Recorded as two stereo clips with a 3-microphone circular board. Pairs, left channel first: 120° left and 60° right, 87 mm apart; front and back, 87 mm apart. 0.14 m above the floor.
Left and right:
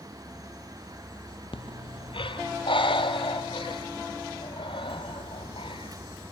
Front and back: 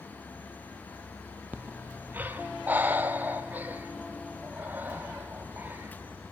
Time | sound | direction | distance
1.5 | breathing | 115° left | 0.6 m